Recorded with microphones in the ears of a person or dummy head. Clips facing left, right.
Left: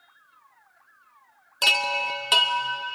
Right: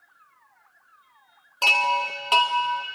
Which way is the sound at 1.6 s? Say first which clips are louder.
Right 3 dB; 15° left (ahead or behind).